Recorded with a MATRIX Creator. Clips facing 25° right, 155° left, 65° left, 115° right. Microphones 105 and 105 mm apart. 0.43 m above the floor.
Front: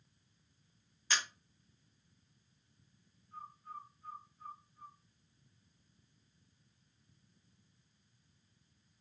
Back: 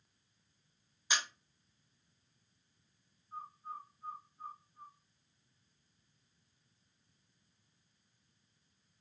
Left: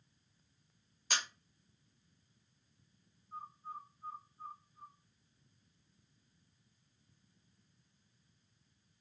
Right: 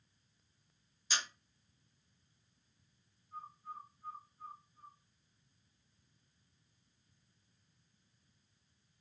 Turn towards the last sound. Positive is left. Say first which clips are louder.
# back 3 dB, left 1 dB
turn(degrees=110)